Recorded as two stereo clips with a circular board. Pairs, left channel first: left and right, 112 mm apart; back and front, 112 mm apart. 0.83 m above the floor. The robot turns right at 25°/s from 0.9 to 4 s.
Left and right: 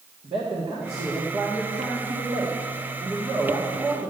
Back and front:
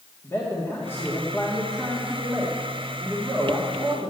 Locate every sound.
0.2 s a man speaking: 115° right, 1.7 m; by 4.1 s 35° right, 1.7 m